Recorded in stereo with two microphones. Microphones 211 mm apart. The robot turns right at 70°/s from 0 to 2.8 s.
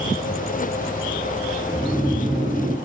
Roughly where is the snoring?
Centre.